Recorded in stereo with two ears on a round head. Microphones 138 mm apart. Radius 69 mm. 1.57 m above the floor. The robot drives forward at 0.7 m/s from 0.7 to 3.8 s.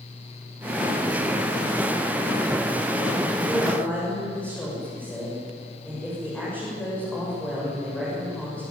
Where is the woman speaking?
10° left (ahead or behind), 7 m.